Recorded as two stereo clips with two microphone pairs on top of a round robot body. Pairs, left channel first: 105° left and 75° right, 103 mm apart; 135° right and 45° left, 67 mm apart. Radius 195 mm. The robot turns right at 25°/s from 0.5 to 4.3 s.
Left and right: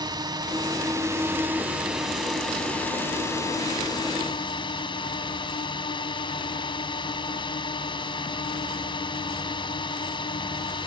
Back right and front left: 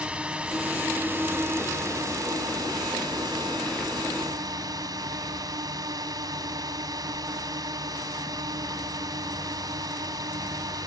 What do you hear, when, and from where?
0.0 s a drone: 30° right; by 10.9 s 65° left